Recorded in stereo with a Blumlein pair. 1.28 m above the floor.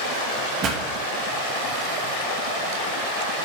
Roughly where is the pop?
Ahead right.